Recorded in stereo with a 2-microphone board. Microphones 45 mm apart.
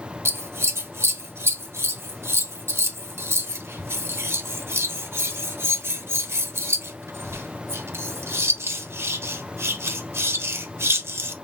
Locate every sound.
0.2 s scissors: 80° right, 0.8 m